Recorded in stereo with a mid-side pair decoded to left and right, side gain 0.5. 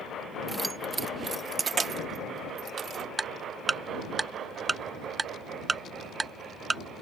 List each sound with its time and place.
0.5 s keys jangling: 15° right; by 3.1 s 50° right
3.2 s ticking: 20° right